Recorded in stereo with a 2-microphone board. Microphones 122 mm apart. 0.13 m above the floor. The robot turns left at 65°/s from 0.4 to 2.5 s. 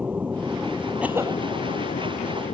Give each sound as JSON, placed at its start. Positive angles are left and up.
{"t": 0.0, "sound": "an aircraft", "side_deg": -10}
{"t": 1.0, "sound": "a cough", "side_deg": -10}